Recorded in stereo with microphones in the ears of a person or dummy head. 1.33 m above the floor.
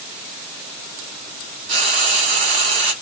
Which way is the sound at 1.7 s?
45° right (ahead or behind).